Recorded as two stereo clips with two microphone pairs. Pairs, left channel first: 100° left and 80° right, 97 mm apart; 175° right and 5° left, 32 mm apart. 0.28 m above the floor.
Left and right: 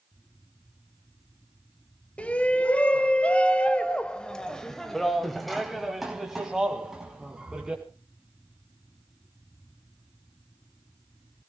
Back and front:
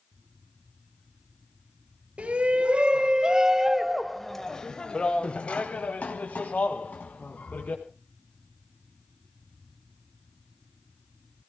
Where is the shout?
30° left, 1.4 m; by 7.8 s 165° right, 2 m.